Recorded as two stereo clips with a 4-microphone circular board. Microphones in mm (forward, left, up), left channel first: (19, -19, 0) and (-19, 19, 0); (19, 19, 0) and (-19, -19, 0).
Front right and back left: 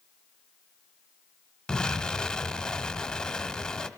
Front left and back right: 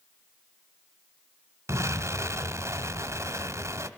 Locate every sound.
1.7 s an explosion: 120° right, 1.3 m